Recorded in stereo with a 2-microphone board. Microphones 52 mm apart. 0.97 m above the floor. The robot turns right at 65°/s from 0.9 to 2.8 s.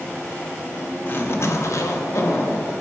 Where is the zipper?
35° left, 0.8 m; by 2.7 s 140° left, 0.8 m.